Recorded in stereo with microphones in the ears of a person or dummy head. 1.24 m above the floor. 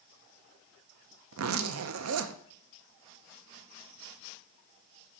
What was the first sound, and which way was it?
A zipper, 75° right (ahead or behind).